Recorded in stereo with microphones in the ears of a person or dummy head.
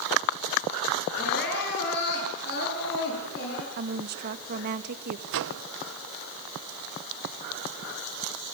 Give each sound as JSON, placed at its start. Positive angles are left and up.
{"t": 1.2, "sound": "crying", "side_deg": 60, "distance_m": 8.5}
{"t": 3.8, "sound": "a woman speaking", "side_deg": -55, "distance_m": 2.0}
{"t": 5.3, "sound": "a microwave", "side_deg": -65, "distance_m": 0.9}